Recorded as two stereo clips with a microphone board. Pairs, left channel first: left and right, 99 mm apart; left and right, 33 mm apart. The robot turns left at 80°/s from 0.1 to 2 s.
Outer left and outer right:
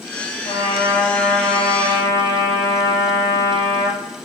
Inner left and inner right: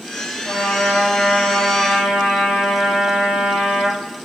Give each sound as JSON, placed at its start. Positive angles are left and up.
{"t": 0.5, "sound": "a trumpet", "azimuth_deg": 70, "distance_m": 0.7}